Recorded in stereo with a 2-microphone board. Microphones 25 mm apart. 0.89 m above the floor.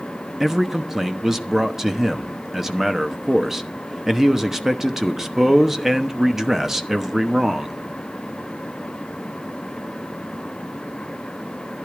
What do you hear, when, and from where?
0.4 s a man speaking: 15° right (ahead or behind), 1.0 m